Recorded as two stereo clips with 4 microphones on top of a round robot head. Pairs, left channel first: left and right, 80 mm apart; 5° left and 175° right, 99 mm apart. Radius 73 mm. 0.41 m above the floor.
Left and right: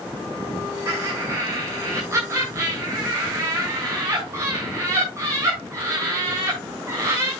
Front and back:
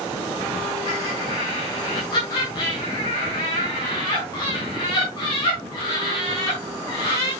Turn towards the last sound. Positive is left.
turn(degrees=-45)